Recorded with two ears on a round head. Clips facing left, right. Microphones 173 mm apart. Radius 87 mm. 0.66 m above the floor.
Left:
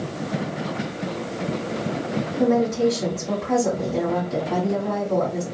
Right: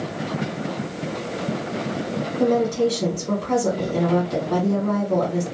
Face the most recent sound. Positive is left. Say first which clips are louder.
# even
turn(degrees=-30)  # may be behind; listen again after turning